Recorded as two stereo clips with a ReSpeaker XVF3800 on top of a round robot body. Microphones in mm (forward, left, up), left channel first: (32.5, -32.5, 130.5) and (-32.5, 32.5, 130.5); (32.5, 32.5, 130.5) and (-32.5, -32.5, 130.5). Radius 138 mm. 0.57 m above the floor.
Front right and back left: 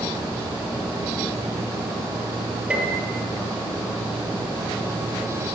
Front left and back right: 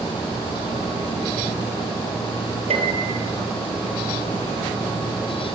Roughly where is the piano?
Behind right.